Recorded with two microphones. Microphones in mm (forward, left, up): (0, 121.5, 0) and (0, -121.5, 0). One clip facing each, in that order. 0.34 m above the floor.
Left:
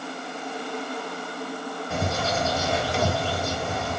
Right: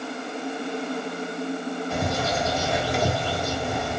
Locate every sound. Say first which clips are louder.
1.9 s a bird: left 1 dB; centre (ahead or behind), 1.5 m